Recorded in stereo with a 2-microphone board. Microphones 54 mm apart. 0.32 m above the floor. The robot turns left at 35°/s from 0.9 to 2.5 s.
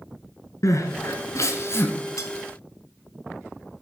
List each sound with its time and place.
0.6 s crying: 80° left, 1.8 m; by 1.9 s 50° left (ahead or behind), 1.8 m
2.2 s cutlery clinking: 75° left (ahead or behind), 1.8 m; by 2.3 s 70° left (ahead or behind), 1.8 m